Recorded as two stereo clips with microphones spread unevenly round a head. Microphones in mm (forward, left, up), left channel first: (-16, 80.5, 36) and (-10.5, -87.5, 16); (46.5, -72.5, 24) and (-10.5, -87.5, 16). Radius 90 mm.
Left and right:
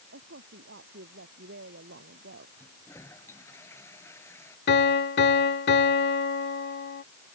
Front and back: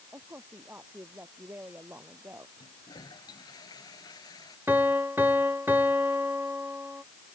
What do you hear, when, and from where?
0.1 s a woman speaking: 110° right
2.6 s a toilet flushing: 15° left
4.7 s a piano: 115° left